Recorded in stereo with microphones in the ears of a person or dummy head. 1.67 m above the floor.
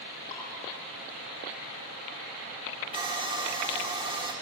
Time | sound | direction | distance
0.3 | dripping | 30° left (ahead or behind) | 8.5 m
2.9 | sawing | 25° right (ahead or behind) | 3 m